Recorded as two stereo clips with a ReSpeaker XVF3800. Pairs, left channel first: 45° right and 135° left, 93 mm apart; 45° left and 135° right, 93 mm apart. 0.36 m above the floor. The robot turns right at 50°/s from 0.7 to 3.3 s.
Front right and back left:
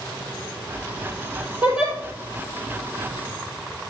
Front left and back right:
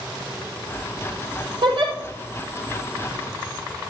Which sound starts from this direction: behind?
A giggle, at 1.6 s.